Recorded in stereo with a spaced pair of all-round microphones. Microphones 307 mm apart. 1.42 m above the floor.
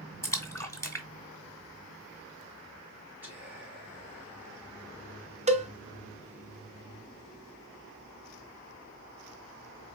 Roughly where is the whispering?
Centre.